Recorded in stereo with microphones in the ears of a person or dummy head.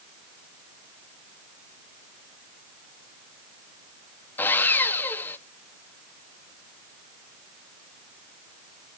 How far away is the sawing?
About 0.9 m.